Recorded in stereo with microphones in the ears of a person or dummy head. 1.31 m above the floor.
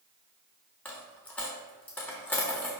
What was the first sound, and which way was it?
A dropped coin, 10° left (ahead or behind).